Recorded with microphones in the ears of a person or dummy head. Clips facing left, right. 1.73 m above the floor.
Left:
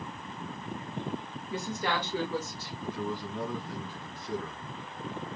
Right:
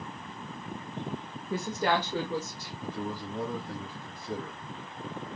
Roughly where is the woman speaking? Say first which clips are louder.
Right 4 dB; right.